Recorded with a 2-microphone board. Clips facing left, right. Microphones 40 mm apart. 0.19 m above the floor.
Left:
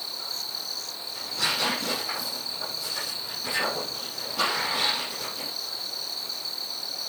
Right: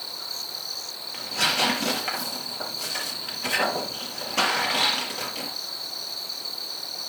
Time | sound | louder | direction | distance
1.1 | tearing paper | right 4 dB | 70° right (ahead or behind) | 5 m